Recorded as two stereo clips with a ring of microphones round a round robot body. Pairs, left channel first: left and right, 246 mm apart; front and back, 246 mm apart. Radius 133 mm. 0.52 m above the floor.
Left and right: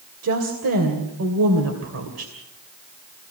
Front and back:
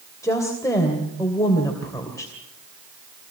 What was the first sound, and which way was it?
A woman speaking, 75° right.